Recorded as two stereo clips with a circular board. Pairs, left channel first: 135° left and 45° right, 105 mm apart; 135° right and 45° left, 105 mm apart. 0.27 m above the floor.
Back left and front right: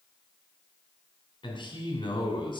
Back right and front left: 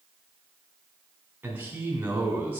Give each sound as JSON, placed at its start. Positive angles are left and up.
{"t": 1.4, "sound": "a man speaking", "azimuth_deg": 115, "distance_m": 3.0}